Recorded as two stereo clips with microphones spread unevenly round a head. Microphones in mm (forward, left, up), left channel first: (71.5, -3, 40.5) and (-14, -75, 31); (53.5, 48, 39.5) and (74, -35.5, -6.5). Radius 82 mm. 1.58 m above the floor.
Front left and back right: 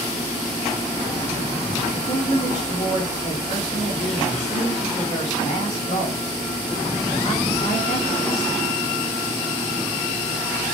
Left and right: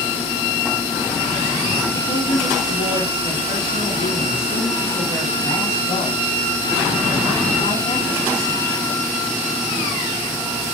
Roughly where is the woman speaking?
Left.